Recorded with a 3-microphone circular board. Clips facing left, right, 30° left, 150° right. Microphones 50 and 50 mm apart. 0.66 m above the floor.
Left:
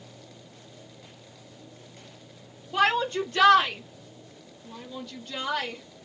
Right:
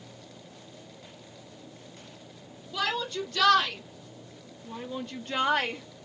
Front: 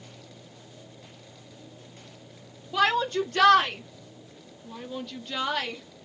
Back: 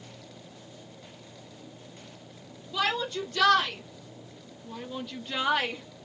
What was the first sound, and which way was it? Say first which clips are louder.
A shout: left 7 dB, front 5 dB; 55° left.